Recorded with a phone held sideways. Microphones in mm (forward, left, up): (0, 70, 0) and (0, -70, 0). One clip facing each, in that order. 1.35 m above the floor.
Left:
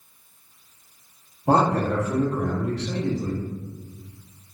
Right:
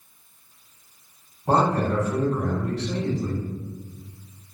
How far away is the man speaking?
About 1.2 m.